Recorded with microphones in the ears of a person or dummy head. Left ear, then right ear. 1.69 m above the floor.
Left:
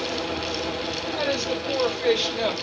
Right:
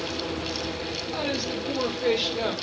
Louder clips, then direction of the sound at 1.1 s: Left 4 dB; 30° left (ahead or behind).